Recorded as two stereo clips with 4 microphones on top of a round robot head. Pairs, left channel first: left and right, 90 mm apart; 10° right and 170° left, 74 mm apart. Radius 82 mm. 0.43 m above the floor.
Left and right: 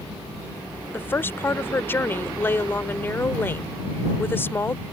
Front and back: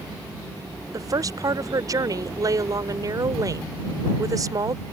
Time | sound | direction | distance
0.9 | a woman speaking | 150° left | ?